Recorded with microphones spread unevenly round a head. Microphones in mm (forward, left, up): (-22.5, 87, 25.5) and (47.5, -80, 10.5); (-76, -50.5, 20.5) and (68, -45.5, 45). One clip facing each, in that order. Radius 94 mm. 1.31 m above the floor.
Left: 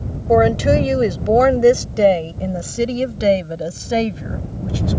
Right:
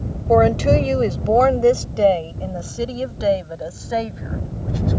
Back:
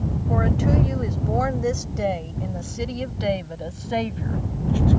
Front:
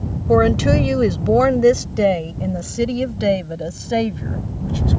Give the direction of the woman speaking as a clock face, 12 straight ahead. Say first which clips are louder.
Left 1 dB, front 9 dB; 11 o'clock.